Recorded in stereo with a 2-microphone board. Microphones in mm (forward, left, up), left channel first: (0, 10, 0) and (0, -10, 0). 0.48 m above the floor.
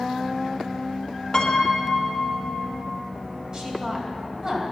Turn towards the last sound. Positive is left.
turn(degrees=-35)  # may be behind; listen again after turning